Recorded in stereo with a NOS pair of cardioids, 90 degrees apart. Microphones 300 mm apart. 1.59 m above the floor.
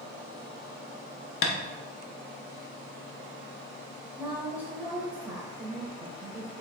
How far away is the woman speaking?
About 1.5 m.